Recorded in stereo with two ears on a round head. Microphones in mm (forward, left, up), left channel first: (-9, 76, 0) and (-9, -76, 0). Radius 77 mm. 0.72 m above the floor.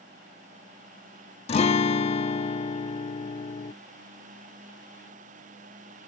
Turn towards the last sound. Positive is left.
turn(degrees=35)  # may be behind; listen again after turning